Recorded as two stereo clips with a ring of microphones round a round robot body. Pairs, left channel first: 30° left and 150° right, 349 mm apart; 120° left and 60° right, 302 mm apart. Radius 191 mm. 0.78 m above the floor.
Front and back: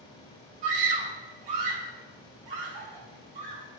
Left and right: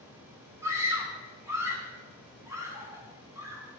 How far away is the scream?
About 5.5 m.